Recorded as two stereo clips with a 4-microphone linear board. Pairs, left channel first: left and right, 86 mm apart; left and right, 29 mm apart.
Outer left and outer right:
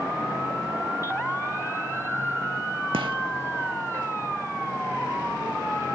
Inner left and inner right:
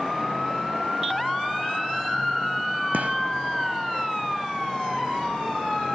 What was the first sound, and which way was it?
A gunshot, 80° right.